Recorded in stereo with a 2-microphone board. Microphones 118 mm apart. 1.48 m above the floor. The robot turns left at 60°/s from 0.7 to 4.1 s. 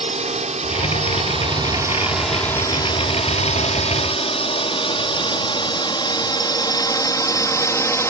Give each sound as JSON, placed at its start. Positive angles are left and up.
{"t": 0.0, "sound": "a drone", "side_deg": -70}